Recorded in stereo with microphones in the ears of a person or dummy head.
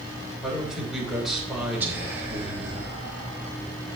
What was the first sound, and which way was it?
A man speaking, centre (ahead or behind).